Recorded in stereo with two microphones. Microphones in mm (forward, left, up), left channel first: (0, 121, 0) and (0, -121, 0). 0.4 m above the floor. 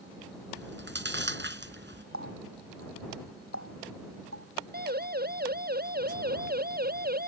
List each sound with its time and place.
0.6 s chewing: 50° right (ahead or behind)
2.1 s a running tap: 65° right (ahead or behind)
4.7 s a siren: 40° right (ahead or behind)